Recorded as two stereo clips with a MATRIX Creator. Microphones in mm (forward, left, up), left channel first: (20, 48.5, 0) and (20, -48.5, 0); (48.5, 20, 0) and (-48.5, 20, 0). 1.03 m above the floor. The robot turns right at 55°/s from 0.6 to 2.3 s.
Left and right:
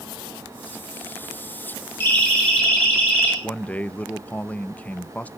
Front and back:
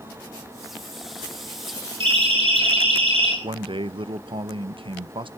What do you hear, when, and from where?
2.0 s a siren: 155° left, 9 m; by 3.3 s 165° left, 10.5 m
3.4 s a man speaking: 165° left, 0.7 m